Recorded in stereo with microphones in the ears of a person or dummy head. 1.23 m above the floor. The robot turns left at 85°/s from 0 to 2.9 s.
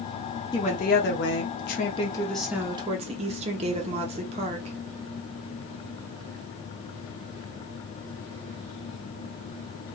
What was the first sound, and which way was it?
A woman speaking, 155° left.